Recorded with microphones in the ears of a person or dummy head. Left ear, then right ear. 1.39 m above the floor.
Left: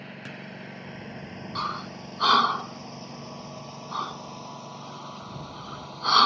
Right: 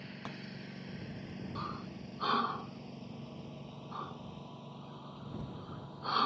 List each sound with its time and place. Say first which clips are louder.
0.0 s a lawn mower: left 6 dB; 20° left (ahead or behind); by 6.3 s 65° left (ahead or behind)
1.6 s breathing: left 12 dB; 80° left